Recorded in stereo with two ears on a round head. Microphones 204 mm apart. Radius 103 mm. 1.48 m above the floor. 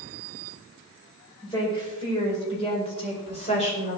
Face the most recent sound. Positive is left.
turn(degrees=30)  # may be behind; listen again after turning